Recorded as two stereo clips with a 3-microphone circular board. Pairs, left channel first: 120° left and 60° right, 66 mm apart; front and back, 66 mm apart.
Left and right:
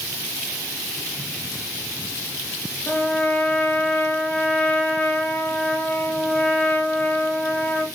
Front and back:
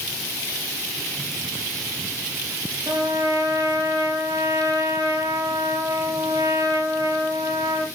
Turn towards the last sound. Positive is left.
turn(degrees=-175)